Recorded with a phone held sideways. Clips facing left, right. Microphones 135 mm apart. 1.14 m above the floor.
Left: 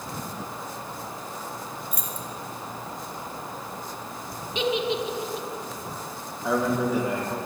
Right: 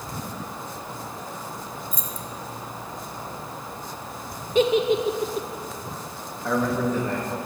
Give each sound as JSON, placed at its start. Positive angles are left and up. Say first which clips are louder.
{"t": 1.9, "sound": "keys jangling", "louder": "even", "side_deg": 65, "distance_m": 0.8}
{"t": 4.5, "sound": "a giggle", "louder": "right 6 dB", "side_deg": -45, "distance_m": 0.5}
{"t": 6.4, "sound": "a man speaking", "louder": "even", "side_deg": 10, "distance_m": 1.2}